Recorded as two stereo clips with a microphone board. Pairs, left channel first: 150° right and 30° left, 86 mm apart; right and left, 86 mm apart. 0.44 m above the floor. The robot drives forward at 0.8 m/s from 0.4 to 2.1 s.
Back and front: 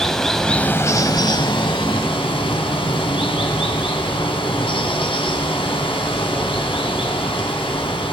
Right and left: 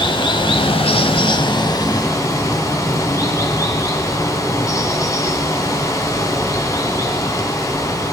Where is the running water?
65° right, 0.8 m; by 8.1 s 145° right, 1.3 m.